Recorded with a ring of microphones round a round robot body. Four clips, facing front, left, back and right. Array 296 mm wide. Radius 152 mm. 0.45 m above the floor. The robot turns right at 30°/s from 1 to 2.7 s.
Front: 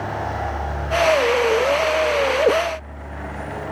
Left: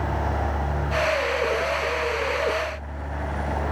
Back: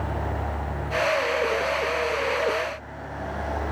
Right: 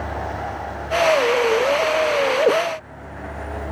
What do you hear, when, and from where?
Only background noise.